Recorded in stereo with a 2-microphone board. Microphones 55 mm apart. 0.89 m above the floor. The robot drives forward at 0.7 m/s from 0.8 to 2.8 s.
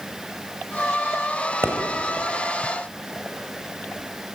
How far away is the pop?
About 3.5 m.